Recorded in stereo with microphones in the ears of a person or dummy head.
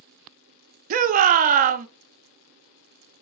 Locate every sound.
0.9 s a shout: 50° right (ahead or behind), 0.6 m